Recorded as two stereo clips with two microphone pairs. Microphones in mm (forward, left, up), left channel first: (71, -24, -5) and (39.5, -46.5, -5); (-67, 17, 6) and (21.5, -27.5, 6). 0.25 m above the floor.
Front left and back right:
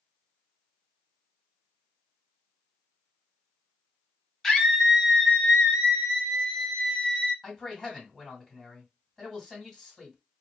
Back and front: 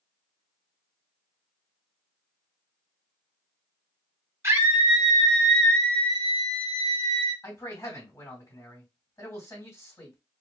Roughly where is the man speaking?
Behind left.